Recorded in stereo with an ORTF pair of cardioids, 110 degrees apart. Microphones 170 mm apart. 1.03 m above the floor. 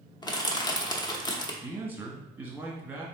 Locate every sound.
0.2 s crushing: 25° left, 0.7 m
1.6 s a man speaking: 10° right, 1.2 m